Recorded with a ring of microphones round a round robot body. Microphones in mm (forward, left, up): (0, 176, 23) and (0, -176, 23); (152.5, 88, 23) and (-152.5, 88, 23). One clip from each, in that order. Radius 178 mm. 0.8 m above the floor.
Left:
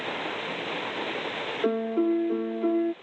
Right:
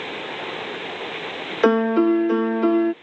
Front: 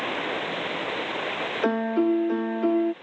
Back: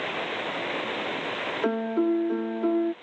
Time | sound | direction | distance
1.6 | a piano | 75° right | ?